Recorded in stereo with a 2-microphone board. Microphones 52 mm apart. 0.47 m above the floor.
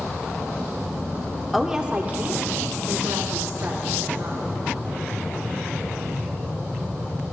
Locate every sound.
1.5 s a woman speaking: centre (ahead or behind), 0.7 m; by 4.4 s 70° right (ahead or behind), 2.5 m